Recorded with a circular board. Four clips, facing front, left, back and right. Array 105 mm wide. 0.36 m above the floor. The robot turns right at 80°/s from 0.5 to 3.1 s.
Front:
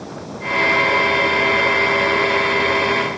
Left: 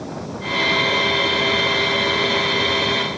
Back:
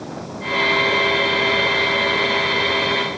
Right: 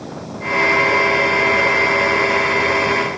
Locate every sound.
Only background noise.